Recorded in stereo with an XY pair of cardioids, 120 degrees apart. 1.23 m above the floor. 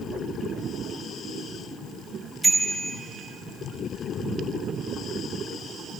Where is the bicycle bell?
15° right, 3 m.